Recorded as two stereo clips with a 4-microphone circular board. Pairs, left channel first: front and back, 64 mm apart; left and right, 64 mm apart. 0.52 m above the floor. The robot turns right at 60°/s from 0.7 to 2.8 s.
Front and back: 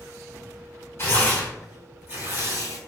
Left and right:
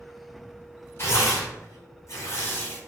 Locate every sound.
1.0 s tearing paper: 50° left, 1.6 m; by 2.8 s 160° left, 1.6 m